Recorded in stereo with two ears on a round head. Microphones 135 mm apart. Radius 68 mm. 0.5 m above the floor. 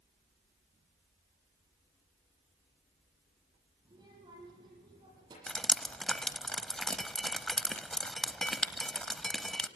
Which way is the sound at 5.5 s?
5° left (ahead or behind).